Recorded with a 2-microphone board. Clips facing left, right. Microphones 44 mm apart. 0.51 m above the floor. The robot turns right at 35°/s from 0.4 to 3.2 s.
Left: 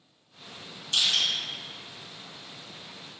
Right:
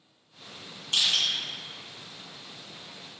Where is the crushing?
35° right (ahead or behind), 1.3 m; by 1.2 s 45° right (ahead or behind), 1.3 m.